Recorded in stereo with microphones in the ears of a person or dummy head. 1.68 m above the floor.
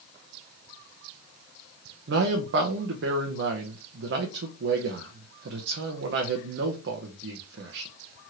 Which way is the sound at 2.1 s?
65° right (ahead or behind).